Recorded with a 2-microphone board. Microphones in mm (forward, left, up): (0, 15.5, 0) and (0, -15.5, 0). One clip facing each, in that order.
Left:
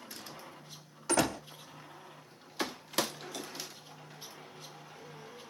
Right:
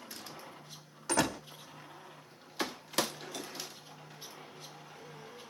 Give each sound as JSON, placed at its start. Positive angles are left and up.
{"t": 1.1, "sound": "a door slam", "side_deg": 0, "distance_m": 5.0}